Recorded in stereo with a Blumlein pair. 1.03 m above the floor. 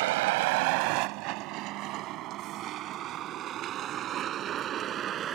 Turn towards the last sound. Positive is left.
turn(degrees=-30)